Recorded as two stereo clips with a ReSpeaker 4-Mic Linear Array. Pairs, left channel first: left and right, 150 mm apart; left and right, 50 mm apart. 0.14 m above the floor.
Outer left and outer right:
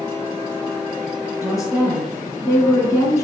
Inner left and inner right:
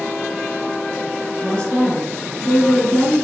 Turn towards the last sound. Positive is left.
turn(degrees=20)  # may be behind; listen again after turning